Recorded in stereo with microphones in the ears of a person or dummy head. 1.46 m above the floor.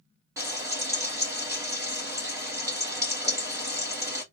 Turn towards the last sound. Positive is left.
turn(degrees=-15)  # may be behind; listen again after turning